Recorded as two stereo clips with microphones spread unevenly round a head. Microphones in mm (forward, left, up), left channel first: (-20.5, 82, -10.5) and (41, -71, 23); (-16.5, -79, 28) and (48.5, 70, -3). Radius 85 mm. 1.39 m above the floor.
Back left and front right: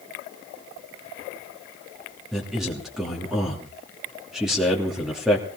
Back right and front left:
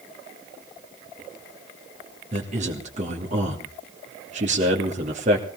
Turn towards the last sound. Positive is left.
turn(degrees=20)